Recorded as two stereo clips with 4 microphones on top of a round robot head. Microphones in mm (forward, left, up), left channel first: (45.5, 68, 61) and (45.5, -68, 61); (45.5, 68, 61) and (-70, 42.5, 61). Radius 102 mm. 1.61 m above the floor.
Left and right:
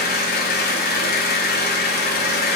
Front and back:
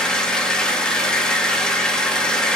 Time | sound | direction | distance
0.0 | an engine running | 95° left | 1.9 m